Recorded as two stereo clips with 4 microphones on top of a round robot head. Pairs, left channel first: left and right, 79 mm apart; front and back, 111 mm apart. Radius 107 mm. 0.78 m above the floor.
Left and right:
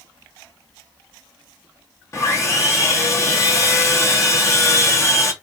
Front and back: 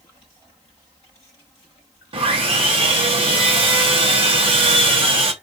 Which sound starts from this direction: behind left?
Sawing, at 2.1 s.